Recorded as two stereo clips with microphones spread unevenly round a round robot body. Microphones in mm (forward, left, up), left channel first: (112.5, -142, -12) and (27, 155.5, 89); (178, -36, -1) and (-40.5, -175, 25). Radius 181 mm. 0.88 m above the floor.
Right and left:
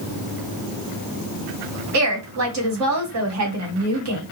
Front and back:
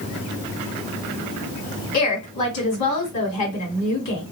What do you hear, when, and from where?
1.9 s a woman speaking: 65° left, 1.6 m